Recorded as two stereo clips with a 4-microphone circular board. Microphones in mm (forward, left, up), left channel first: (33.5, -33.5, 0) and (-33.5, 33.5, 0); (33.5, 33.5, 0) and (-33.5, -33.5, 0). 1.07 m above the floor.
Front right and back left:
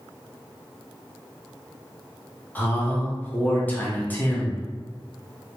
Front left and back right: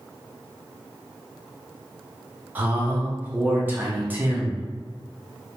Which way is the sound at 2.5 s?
90° right.